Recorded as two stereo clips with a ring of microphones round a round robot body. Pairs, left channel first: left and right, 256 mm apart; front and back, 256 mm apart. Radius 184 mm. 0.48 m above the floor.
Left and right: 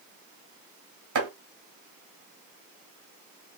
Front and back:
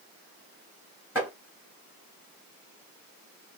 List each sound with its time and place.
1.1 s chopping: 95° right, 1.7 m